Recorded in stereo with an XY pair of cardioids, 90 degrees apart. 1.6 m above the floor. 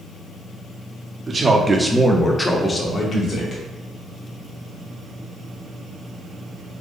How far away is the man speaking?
About 0.9 m.